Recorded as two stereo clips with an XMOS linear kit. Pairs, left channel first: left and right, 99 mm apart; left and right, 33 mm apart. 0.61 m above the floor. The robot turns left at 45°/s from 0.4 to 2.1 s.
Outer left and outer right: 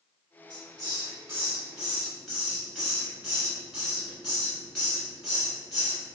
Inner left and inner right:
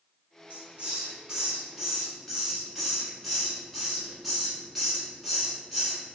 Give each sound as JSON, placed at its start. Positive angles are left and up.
{"t": 0.5, "sound": "a hiss", "side_deg": -45, "distance_m": 1.6}